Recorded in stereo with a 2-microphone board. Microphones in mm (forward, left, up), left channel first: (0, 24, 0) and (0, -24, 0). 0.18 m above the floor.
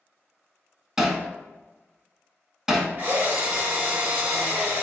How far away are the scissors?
I don't hear scissors.